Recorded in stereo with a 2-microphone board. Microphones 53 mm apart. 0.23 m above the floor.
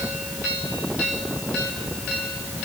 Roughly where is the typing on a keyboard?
No typing on a keyboard in this recording.